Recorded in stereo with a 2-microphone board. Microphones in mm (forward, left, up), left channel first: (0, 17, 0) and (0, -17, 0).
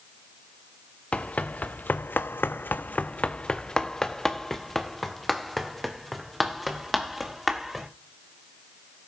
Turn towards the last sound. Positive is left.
turn(degrees=-5)  # may be behind; listen again after turning